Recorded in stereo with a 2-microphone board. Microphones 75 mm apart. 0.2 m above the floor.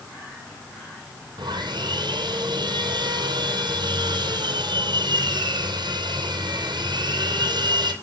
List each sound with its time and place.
1.4 s sawing: 75° right (ahead or behind), 3 m